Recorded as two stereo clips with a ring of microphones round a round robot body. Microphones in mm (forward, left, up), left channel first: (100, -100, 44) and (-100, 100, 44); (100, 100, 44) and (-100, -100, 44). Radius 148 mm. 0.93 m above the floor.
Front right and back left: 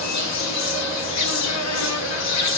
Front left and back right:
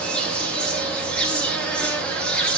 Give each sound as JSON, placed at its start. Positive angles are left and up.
{"t": 0.0, "sound": "an insect", "azimuth_deg": -40, "distance_m": 2.5}